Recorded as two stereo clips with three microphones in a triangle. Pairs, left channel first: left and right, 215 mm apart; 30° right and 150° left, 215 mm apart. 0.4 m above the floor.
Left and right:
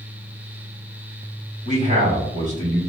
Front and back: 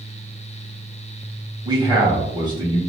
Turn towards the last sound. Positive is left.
turn(degrees=-140)